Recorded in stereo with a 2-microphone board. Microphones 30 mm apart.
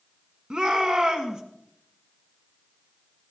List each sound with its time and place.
0.5 s a shout: 30° right (ahead or behind), 1.6 m